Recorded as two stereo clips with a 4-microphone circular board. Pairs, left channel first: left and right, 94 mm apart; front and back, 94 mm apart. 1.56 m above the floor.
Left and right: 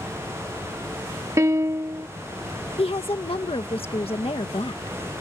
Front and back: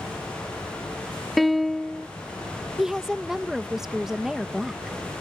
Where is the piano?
90° right.